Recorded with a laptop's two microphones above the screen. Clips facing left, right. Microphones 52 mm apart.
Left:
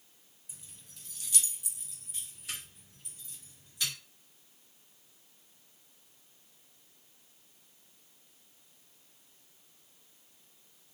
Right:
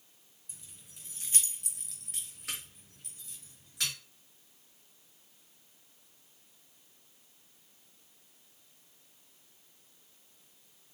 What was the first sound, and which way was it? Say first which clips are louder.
Keys jangling: even; 5° left (ahead or behind).